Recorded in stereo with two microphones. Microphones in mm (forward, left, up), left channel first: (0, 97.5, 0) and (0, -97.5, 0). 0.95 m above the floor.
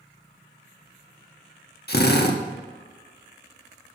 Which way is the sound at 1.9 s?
55° left (ahead or behind).